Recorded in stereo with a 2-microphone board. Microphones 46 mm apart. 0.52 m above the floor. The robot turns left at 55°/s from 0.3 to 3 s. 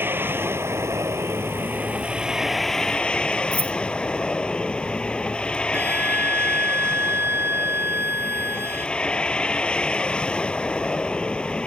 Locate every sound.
0.0 s a vehicle: 55° right; by 11.7 s 160° left
3.5 s keys jangling: 35° left (ahead or behind)
5.7 s a flute: 65° right (ahead or behind)